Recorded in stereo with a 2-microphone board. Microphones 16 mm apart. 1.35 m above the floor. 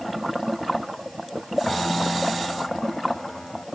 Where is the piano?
80° left.